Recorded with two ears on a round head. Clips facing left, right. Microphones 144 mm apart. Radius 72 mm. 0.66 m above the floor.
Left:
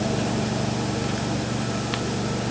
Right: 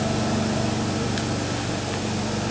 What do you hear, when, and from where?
Only background noise.